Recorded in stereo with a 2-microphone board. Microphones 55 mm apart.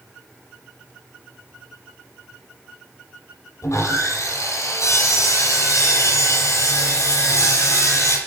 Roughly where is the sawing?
Left.